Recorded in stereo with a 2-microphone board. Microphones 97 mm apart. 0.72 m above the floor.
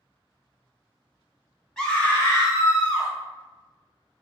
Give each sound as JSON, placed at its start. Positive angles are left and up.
{"t": 1.8, "sound": "a scream", "side_deg": 0, "distance_m": 0.8}